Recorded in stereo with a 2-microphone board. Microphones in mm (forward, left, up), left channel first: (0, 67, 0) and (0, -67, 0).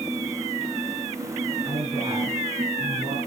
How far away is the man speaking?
About 4 m.